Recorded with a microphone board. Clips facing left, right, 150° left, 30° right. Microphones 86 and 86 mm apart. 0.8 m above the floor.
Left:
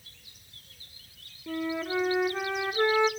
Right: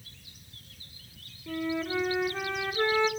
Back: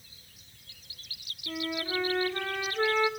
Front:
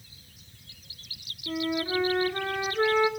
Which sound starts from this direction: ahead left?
A flute, at 1.5 s.